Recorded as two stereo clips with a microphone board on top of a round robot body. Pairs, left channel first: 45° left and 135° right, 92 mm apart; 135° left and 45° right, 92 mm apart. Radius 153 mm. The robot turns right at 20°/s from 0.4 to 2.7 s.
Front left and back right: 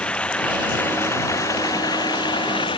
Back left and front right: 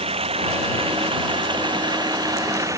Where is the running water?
35° right; by 2.8 s 10° left.